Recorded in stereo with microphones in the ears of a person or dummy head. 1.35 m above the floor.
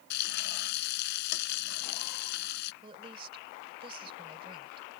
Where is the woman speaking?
35° right (ahead or behind).